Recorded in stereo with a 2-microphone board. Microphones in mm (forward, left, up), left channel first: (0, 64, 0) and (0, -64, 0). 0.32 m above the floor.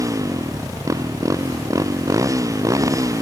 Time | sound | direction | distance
0.0 | a motorcycle | 25° right (ahead or behind) | ?